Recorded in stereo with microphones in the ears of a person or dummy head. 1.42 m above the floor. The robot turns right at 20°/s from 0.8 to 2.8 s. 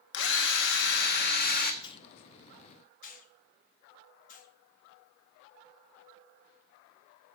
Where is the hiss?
30° left (ahead or behind), 1.1 m; by 4.5 s 50° left (ahead or behind), 1.1 m.